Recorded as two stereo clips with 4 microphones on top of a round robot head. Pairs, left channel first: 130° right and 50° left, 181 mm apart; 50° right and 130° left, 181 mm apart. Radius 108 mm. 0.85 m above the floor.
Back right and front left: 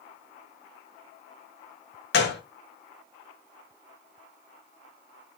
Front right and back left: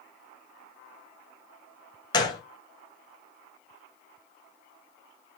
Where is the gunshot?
115° right, 0.9 m.